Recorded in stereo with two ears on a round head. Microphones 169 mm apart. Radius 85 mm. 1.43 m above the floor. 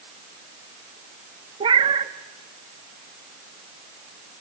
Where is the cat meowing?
25° right (ahead or behind), 0.9 m.